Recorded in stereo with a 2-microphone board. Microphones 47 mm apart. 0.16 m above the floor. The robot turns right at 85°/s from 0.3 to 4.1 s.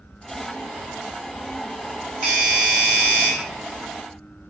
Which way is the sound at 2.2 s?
15° right (ahead or behind).